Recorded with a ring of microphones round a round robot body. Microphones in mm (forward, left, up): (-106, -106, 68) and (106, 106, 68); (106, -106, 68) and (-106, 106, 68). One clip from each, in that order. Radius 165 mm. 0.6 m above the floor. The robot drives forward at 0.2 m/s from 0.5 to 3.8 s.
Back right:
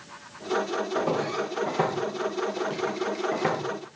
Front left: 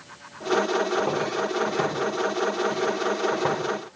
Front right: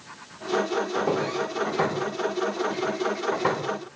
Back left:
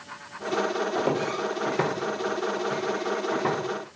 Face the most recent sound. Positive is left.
turn(degrees=-130)